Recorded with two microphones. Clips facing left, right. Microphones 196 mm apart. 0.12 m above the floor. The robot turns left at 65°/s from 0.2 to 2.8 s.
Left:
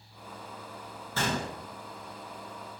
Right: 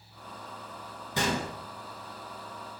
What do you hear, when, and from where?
1.1 s a gunshot: 15° right (ahead or behind), 1.8 m; by 1.5 s 5° right (ahead or behind), 1.8 m